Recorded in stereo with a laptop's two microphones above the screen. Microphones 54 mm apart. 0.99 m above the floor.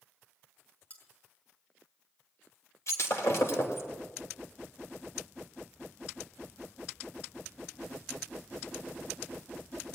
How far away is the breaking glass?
About 2.5 m.